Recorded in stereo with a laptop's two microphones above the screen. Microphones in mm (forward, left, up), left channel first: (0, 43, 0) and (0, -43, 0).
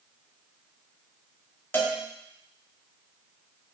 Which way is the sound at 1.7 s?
25° left (ahead or behind).